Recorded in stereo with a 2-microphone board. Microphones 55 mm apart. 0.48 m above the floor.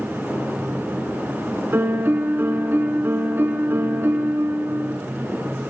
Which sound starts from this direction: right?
A piano, at 1.7 s.